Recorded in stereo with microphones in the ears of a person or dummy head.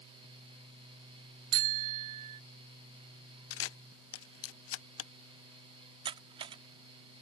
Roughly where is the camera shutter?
Left.